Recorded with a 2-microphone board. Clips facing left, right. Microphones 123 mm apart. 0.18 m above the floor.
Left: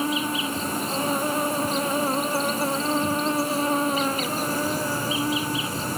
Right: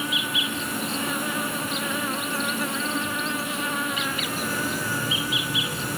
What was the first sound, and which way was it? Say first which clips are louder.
An insect: left 5 dB; 35° left (ahead or behind).